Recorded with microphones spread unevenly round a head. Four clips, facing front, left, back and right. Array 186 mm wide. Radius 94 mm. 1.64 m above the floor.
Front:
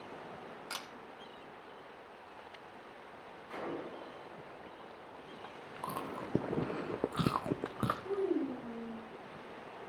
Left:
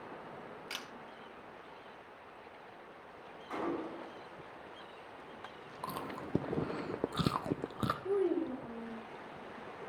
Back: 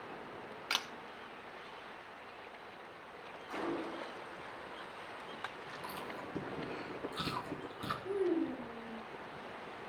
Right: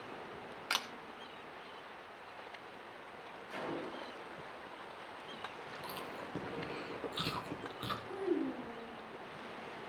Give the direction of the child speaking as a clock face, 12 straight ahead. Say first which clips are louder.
Left 4 dB, back 2 dB; 9 o'clock.